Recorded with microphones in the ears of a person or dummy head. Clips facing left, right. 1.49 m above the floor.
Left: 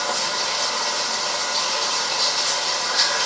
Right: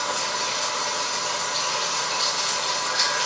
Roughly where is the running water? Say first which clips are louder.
Left 2 dB; left.